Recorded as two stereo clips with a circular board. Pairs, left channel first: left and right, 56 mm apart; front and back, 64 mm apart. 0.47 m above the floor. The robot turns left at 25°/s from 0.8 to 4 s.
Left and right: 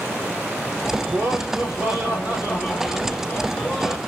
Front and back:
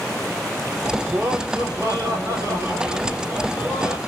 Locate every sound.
1.1 s laughter: 125° right, 1.3 m; by 4.0 s 160° left, 1.3 m